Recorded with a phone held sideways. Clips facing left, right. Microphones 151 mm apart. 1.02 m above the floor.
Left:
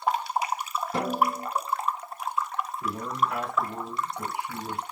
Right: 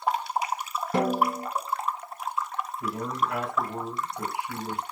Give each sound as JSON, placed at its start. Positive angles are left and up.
{"t": 0.9, "sound": "a snare drum", "side_deg": -70, "distance_m": 2.5}
{"t": 2.8, "sound": "a man speaking", "side_deg": -65, "distance_m": 3.0}